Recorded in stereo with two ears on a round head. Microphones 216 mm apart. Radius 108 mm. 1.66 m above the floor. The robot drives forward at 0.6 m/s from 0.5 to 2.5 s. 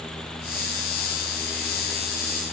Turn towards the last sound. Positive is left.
No sound to turn to.